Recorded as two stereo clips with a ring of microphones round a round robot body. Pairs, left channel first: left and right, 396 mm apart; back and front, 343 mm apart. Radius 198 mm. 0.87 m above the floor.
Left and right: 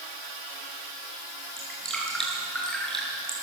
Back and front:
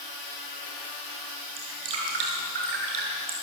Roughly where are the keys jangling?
I don't hear keys jangling.